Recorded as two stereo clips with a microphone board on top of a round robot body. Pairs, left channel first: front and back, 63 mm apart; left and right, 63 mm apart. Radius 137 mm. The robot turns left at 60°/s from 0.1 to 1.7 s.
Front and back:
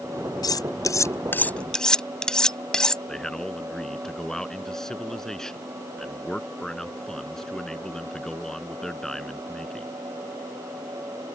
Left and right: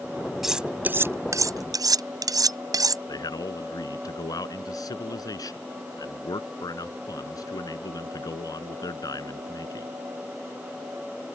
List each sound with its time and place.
0.4 s cutlery clinking: 5° right; by 3.0 s 80° right
3.1 s a man speaking: 80° left